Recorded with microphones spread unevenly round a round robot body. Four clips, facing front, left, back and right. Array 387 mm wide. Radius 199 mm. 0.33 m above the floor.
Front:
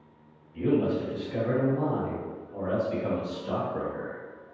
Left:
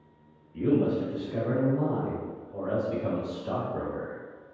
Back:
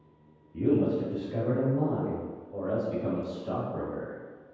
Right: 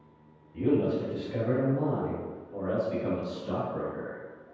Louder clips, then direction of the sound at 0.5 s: Left 1 dB, even; 150° right.